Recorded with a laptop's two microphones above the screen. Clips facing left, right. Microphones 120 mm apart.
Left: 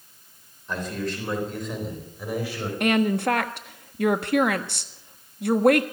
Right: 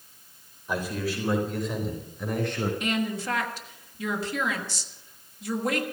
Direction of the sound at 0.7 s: 10° right (ahead or behind).